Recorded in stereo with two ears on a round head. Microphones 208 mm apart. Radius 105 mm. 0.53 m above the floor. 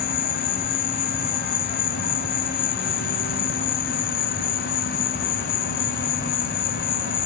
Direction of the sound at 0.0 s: 55° left (ahead or behind).